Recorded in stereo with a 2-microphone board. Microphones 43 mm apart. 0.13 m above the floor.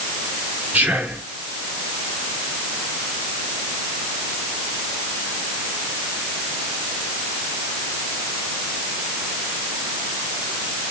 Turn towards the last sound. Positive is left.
turn(degrees=-25)  # may be behind; listen again after turning